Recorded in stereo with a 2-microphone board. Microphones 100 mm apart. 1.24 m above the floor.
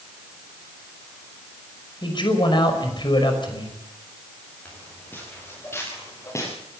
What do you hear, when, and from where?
2.0 s a man speaking: 50° left (ahead or behind), 5.5 m
4.7 s footsteps: 15° left (ahead or behind), 9 m; by 6.5 s 30° left (ahead or behind), 9.5 m